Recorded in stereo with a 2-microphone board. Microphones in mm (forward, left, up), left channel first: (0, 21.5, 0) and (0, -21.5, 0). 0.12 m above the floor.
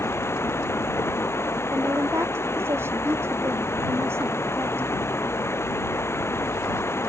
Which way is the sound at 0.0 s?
75° left (ahead or behind).